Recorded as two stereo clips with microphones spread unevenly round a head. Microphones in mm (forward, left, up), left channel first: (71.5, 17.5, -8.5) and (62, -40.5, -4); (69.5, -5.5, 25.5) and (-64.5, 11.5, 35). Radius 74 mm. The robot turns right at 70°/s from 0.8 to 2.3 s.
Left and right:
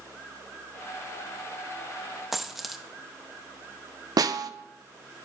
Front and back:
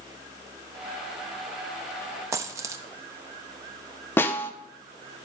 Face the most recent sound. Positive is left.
turn(degrees=-85)